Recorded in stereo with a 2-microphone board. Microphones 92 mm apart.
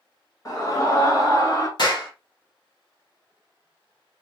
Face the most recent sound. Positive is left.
turn(degrees=50)  # may be behind; listen again after turning